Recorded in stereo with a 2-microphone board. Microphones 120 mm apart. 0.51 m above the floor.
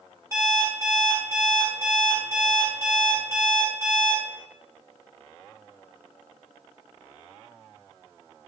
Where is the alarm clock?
20° right (ahead or behind), 1.1 m.